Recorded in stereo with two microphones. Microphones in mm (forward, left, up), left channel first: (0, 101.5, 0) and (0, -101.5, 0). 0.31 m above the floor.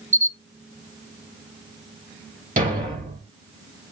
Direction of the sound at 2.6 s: 40° right (ahead or behind).